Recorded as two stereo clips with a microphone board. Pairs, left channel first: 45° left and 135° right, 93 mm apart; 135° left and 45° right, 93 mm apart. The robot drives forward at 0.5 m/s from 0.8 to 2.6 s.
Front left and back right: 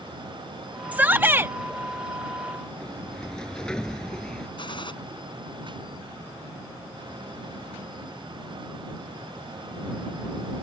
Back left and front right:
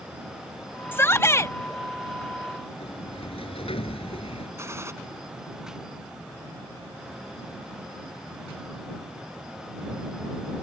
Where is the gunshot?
15° left.